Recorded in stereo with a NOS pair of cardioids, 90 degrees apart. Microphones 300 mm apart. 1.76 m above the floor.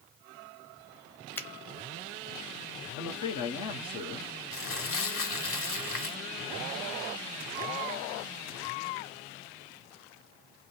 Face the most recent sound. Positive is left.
turn(degrees=45)